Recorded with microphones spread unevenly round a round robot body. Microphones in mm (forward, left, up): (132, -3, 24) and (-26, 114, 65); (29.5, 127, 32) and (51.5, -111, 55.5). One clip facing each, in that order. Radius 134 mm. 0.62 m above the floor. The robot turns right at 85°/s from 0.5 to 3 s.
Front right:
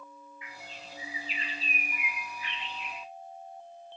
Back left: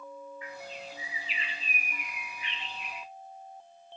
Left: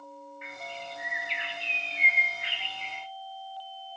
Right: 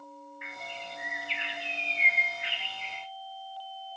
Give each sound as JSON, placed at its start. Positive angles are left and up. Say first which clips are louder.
{"t": 0.4, "sound": "a bird", "louder": "back left 6 dB, left 2 dB", "azimuth_deg": -100, "distance_m": 0.9}